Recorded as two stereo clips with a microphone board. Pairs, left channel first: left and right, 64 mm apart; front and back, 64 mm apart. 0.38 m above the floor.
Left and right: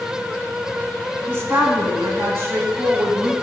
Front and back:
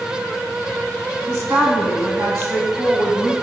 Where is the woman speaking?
140° right, 3 m.